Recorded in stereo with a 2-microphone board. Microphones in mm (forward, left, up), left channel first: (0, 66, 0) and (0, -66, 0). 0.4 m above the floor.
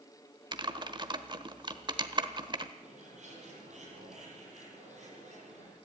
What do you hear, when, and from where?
0.5 s typing on a keyboard: 40° right (ahead or behind), 1.2 m
2.8 s a bird: 65° right (ahead or behind), 7.5 m